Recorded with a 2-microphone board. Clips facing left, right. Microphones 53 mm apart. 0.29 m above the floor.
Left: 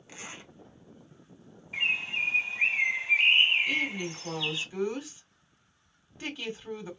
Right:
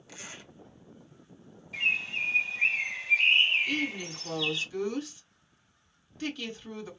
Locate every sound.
0.1 s a zipper: 30° left (ahead or behind), 1.8 m
1.7 s a bird: 25° left (ahead or behind), 1.7 m
3.7 s a woman speaking: 15° left (ahead or behind), 1.9 m